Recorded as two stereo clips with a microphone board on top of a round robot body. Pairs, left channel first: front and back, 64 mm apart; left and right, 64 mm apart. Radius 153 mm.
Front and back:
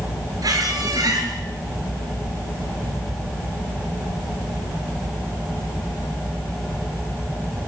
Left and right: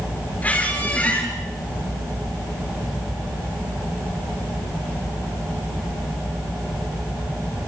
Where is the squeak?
160° left, 5.5 m.